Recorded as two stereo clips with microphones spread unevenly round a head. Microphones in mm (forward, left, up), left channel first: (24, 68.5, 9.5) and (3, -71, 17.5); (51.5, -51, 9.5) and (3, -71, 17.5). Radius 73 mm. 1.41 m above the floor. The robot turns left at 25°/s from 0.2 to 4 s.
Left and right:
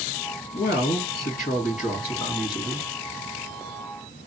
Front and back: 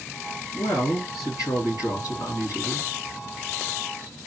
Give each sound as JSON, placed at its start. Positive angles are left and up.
{"t": 0.5, "sound": "a woman speaking", "azimuth_deg": 75, "distance_m": 3.0}